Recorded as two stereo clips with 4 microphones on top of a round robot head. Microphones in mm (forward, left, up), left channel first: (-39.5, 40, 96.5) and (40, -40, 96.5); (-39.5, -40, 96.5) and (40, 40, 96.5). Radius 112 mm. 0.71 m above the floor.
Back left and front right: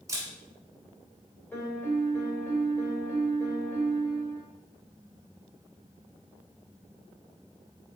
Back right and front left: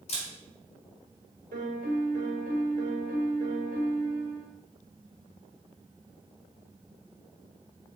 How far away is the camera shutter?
About 1.3 m.